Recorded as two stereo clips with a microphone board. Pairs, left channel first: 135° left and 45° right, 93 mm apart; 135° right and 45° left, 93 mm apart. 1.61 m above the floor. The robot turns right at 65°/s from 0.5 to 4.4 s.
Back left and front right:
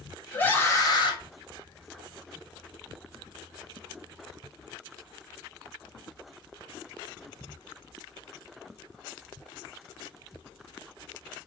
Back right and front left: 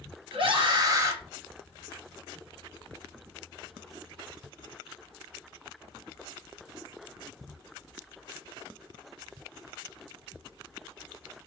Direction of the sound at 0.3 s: 65° left.